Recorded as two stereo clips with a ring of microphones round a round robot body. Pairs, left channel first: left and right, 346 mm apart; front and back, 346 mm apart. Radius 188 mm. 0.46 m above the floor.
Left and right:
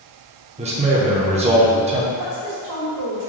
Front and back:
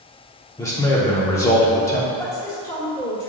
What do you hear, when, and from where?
0.6 s a man speaking: 65° right, 0.7 m
2.2 s a woman speaking: 80° right, 1.5 m